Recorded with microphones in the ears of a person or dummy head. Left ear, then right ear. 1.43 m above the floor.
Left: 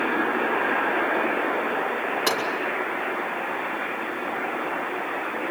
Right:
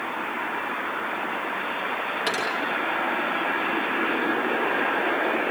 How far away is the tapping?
About 3.5 m.